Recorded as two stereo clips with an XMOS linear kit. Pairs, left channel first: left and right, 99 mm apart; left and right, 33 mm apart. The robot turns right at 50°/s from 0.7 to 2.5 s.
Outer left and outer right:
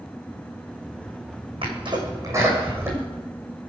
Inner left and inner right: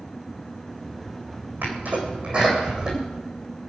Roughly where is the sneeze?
Right.